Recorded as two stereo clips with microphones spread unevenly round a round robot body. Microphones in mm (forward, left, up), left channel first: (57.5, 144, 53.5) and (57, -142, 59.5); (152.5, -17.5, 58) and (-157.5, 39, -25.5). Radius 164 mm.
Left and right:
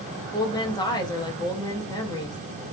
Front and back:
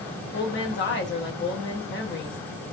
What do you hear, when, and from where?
0.3 s a woman speaking: 35° left, 0.8 m